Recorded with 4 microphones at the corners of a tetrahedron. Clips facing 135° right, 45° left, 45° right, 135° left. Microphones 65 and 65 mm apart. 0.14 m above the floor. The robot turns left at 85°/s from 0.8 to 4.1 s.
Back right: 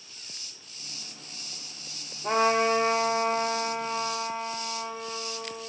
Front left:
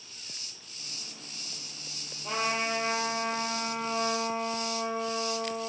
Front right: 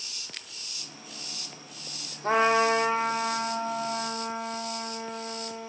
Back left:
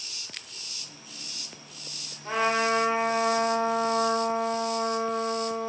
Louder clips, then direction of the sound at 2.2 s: Back right 8 dB, front right 3 dB; 85° right.